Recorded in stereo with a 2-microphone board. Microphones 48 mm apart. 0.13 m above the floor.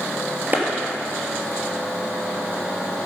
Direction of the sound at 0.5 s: 40° right (ahead or behind).